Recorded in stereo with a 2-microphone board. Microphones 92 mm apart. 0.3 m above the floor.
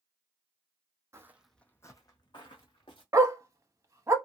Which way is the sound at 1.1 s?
30° right (ahead or behind).